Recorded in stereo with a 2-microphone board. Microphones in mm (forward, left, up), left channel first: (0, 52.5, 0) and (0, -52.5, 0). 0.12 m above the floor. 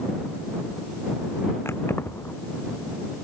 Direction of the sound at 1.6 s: 25° left (ahead or behind).